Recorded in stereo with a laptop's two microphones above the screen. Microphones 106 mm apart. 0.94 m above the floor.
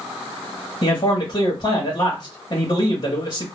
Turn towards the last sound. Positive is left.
turn(degrees=40)  # may be behind; listen again after turning